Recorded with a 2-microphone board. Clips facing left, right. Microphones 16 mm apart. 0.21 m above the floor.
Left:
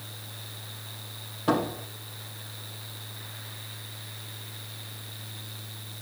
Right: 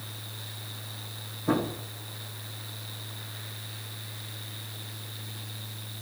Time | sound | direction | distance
1.5 | a door slam | 75° left (ahead or behind) | 6.5 m